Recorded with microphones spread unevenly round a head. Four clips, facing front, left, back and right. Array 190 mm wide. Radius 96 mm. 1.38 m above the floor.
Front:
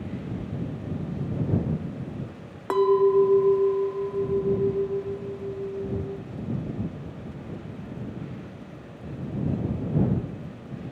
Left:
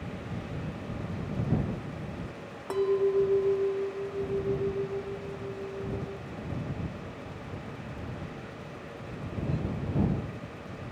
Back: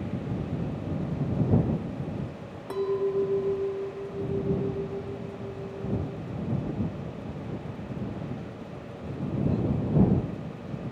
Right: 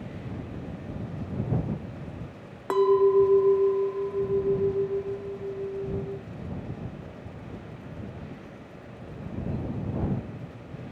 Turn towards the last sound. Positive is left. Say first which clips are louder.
# right 6 dB, front 8 dB
turn(degrees=-20)